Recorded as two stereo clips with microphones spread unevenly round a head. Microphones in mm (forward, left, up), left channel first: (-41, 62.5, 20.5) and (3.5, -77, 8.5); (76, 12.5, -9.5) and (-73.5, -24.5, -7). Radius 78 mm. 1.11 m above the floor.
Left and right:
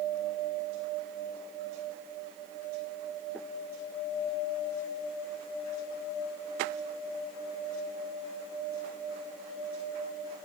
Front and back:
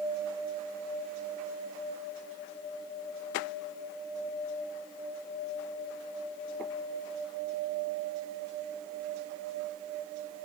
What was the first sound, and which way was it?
Only background noise.